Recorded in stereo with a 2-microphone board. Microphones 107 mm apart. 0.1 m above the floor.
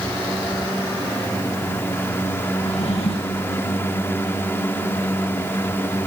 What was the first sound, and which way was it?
A drawer, 70° left (ahead or behind).